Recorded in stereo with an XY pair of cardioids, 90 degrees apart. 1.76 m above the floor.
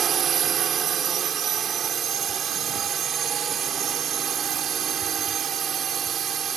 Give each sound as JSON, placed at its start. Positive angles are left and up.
{"t": 0.0, "sound": "a drone", "azimuth_deg": -60}